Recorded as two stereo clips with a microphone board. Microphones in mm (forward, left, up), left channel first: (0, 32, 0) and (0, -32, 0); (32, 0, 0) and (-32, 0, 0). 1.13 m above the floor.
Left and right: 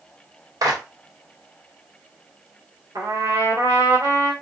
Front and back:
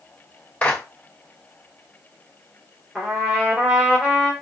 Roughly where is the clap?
Right.